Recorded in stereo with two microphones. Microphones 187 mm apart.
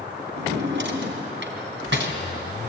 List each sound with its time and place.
0.4 s a drawer: 80° right, 2.5 m